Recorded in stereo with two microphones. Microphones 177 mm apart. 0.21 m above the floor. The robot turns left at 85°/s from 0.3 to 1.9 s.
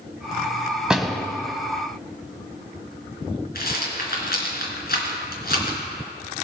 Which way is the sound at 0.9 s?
5° right (ahead or behind).